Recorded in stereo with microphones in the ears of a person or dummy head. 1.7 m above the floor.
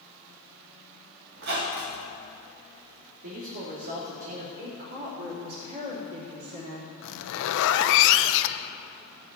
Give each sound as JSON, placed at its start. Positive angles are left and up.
{"t": 1.4, "sound": "a squeak", "side_deg": -60, "distance_m": 1.5}
{"t": 3.2, "sound": "a man speaking", "side_deg": -70, "distance_m": 2.0}
{"t": 4.6, "sound": "a woman speaking", "side_deg": -55, "distance_m": 3.5}
{"t": 7.0, "sound": "a zipper", "side_deg": 75, "distance_m": 0.5}